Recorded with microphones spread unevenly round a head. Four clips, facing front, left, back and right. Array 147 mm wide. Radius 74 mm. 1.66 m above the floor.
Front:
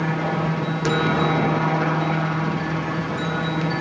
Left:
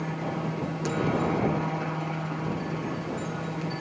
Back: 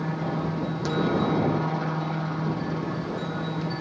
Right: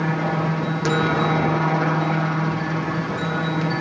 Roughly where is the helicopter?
Ahead right.